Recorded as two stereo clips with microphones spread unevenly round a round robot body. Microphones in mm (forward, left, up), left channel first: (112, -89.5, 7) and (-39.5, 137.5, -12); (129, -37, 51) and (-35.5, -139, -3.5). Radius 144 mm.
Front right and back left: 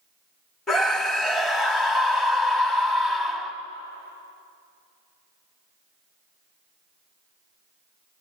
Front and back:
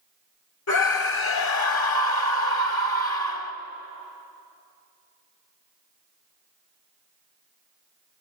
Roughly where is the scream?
Ahead left.